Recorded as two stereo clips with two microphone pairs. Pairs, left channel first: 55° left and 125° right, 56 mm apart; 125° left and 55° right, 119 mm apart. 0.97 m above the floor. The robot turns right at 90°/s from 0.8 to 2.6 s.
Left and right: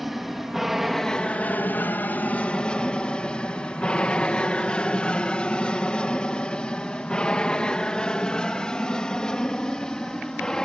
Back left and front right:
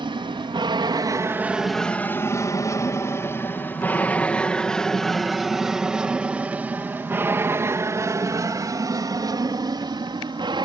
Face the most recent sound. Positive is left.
turn(degrees=-20)